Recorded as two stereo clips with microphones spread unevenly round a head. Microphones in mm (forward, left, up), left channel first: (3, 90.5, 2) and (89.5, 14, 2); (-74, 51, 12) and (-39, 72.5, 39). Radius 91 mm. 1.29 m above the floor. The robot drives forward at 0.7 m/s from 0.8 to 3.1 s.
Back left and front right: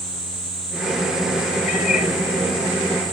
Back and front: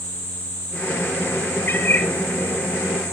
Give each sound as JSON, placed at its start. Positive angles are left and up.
{"t": 1.7, "sound": "a cat meowing", "azimuth_deg": 165, "distance_m": 3.5}